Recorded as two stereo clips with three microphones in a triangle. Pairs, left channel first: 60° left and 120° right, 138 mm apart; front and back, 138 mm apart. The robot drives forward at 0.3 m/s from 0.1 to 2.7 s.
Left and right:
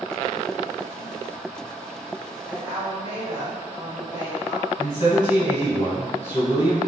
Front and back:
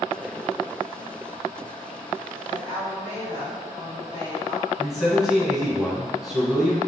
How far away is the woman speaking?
About 2.0 m.